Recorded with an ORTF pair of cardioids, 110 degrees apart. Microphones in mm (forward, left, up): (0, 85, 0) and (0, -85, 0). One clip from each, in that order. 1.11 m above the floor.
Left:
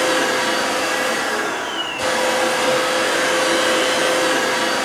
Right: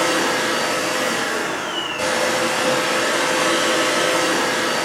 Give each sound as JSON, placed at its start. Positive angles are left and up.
{"t": 0.0, "sound": "a machine running", "azimuth_deg": 0, "distance_m": 1.4}